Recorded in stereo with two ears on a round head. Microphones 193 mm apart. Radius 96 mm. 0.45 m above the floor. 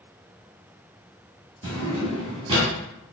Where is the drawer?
25° right (ahead or behind), 1.9 m.